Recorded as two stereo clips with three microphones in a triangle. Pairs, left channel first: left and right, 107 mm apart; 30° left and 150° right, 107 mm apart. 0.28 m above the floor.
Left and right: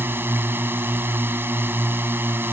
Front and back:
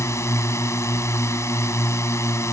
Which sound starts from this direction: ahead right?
A drone, at 0.0 s.